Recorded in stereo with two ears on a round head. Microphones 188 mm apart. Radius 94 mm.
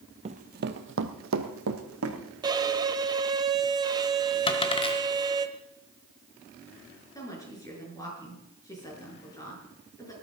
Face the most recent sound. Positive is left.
turn(degrees=15)  # may be behind; listen again after turning